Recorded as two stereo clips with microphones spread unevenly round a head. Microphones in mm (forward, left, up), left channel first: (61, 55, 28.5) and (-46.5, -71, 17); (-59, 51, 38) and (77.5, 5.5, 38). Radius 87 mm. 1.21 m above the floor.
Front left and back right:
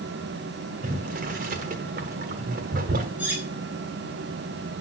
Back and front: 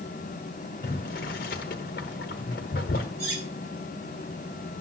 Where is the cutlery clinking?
50° right, 6.5 m.